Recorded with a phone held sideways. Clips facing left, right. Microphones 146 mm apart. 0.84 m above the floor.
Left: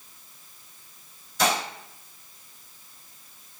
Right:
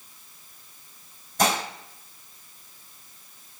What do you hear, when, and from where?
1.4 s dishes clattering: 50° right (ahead or behind), 4 m